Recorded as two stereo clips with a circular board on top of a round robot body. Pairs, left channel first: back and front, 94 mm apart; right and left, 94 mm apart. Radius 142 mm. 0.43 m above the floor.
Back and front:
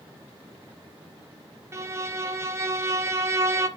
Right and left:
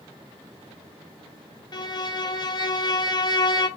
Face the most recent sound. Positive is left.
turn(degrees=-55)